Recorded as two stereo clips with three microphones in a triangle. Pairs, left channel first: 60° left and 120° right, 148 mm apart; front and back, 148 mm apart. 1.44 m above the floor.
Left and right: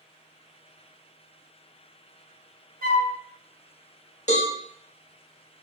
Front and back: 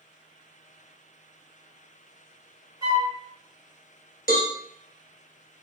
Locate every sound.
2.8 s a flute: 115° right, 1.1 m
4.3 s a cowbell: 20° left, 0.8 m